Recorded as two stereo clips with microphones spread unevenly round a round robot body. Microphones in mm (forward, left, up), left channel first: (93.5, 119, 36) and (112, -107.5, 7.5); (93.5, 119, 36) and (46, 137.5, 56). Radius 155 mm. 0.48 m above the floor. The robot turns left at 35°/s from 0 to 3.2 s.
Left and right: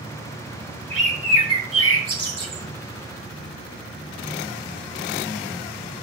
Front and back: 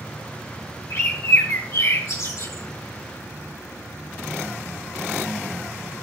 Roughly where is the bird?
Ahead.